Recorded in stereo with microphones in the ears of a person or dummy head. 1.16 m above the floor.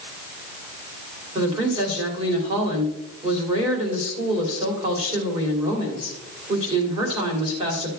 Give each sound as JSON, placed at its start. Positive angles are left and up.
{"t": 1.4, "sound": "a woman speaking", "side_deg": -25, "distance_m": 3.0}